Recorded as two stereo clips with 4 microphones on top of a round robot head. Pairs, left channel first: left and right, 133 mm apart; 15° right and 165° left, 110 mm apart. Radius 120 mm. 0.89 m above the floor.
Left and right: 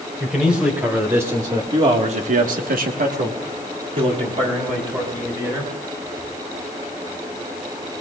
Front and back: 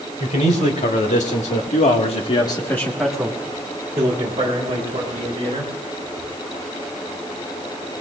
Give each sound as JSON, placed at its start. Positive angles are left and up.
{"t": 0.2, "sound": "a man speaking", "azimuth_deg": -5, "distance_m": 4.0}